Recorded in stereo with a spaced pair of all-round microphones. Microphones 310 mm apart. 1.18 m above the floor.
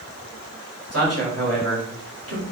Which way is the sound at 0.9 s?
50° right (ahead or behind).